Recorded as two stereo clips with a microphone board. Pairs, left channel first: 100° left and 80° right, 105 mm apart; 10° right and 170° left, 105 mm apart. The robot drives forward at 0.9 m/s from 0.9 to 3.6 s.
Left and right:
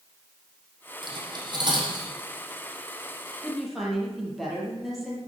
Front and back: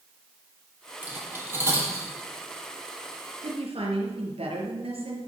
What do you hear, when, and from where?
1.0 s cutlery clinking: 120° right, 4 m; by 2.1 s 130° right, 4.5 m
3.4 s a woman speaking: 170° right, 4.5 m